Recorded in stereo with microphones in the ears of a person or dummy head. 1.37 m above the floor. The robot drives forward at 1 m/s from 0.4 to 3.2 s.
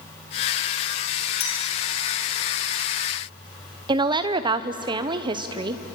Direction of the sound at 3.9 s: 25° right (ahead or behind).